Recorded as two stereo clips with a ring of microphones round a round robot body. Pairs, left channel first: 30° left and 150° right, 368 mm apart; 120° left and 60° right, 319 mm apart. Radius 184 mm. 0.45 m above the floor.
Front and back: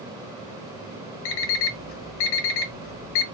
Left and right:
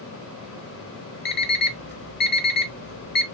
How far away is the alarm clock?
About 0.8 m.